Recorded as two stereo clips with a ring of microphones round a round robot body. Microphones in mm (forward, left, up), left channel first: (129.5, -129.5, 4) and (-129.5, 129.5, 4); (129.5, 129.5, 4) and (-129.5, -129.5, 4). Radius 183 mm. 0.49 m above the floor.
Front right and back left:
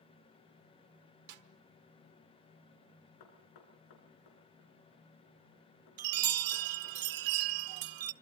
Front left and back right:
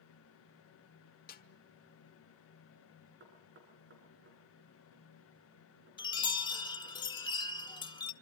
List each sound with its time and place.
1.3 s a snare drum: 105° left, 1.4 m
3.2 s knocking: 75° right, 5.5 m
6.0 s a chime: 120° left, 1.0 m